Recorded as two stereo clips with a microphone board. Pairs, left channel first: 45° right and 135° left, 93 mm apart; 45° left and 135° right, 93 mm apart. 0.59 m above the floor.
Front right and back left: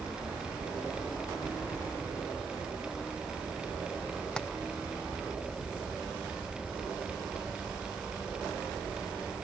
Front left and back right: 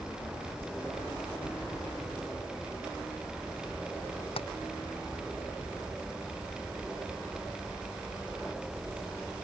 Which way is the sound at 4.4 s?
35° left.